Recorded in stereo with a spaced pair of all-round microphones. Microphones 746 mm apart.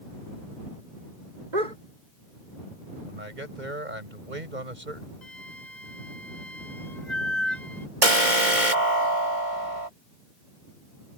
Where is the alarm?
80° right.